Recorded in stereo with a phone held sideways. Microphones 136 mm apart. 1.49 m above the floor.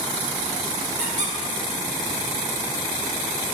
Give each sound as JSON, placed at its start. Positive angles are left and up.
{"t": 1.0, "sound": "a squeak", "side_deg": -70, "distance_m": 3.0}